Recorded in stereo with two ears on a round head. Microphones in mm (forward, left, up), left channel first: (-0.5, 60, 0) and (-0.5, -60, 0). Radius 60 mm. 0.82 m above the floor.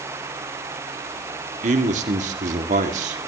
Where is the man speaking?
65° right (ahead or behind), 2 m.